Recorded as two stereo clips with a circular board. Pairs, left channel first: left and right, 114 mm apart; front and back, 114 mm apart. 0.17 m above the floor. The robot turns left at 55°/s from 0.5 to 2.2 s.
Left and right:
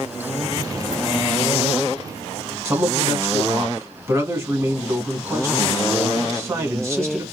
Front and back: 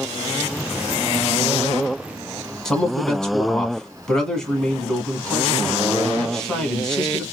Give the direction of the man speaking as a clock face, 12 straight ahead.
3 o'clock.